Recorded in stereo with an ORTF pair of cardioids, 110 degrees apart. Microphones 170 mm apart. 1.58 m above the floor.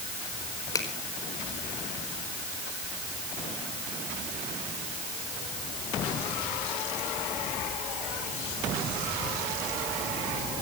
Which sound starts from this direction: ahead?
A finger snap, at 0.8 s.